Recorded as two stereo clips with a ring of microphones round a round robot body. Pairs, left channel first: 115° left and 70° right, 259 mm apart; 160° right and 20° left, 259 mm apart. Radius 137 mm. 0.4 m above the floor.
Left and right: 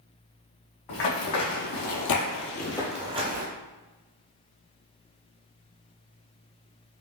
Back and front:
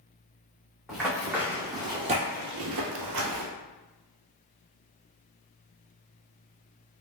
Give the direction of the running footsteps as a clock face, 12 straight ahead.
8 o'clock.